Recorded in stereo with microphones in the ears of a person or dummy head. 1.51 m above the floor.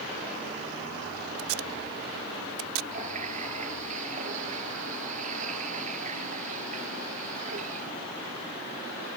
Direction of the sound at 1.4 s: 75° right (ahead or behind).